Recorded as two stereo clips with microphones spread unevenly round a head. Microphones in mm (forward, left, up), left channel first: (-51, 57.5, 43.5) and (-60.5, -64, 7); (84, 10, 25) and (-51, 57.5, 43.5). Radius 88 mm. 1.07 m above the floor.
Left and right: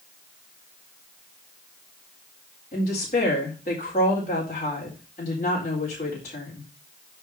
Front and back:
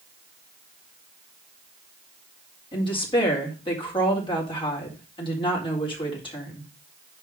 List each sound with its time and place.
2.7 s a woman speaking: 35° left, 4 m